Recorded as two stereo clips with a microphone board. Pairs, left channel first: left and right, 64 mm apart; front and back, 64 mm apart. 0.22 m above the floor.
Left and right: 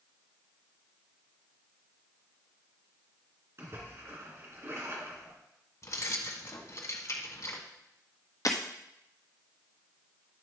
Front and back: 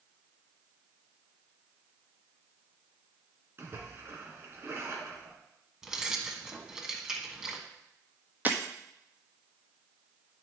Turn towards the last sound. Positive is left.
turn(degrees=120)